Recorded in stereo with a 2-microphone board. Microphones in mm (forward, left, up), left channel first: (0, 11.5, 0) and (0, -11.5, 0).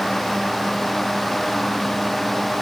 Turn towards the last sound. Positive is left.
No sound to turn to.